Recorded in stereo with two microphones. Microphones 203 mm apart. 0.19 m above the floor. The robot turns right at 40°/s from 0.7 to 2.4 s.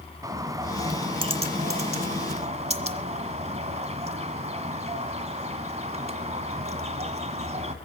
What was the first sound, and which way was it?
A bird, 145° right.